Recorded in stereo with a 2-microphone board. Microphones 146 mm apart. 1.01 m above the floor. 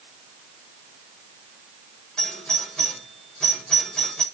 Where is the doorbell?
5° left (ahead or behind), 6.5 m.